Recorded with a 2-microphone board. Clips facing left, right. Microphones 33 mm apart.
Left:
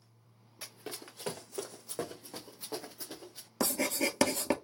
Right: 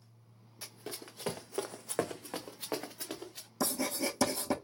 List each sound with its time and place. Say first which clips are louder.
0.6 s running footsteps: even; 15° left (ahead or behind), 1.0 m; by 3.5 s 65° right (ahead or behind), 1.6 m
3.6 s writing: left 2 dB; 80° left, 0.8 m